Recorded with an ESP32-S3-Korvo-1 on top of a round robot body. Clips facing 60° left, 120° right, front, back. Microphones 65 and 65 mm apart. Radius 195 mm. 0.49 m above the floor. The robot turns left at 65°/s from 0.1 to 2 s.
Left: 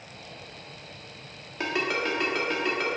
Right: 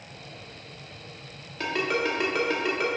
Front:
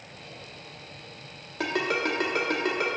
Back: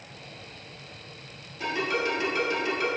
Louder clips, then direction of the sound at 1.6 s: Right 1 dB, front 1 dB; 10° right.